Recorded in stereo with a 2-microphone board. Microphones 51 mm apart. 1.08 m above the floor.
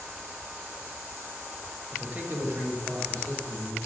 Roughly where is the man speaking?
Centre.